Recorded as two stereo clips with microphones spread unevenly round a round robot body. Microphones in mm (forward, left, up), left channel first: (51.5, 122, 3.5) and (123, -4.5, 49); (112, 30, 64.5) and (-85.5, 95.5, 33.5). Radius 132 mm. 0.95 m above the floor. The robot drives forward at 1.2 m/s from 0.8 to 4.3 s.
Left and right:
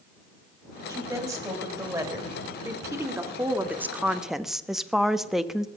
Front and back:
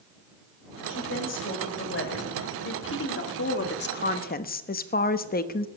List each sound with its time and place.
0.9 s a woman speaking: 5° left, 5 m; by 5.7 s 30° left, 1.2 m